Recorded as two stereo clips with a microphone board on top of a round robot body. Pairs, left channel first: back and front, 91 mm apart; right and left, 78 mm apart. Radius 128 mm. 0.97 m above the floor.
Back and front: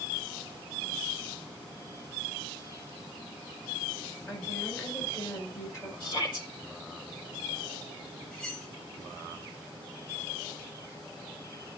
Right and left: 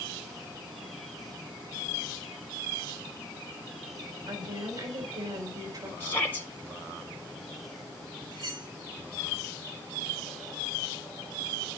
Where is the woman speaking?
125° left, 5 m.